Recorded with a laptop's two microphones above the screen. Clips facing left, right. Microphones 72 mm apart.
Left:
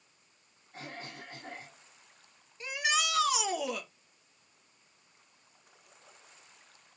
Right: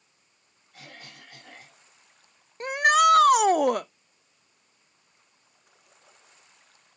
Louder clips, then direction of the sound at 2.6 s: Right 12 dB; 50° right (ahead or behind).